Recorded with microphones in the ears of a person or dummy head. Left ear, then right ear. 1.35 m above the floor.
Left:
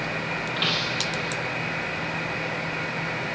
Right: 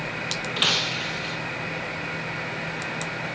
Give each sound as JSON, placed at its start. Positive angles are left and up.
{"t": 0.6, "sound": "breaking glass", "side_deg": -20, "distance_m": 0.8}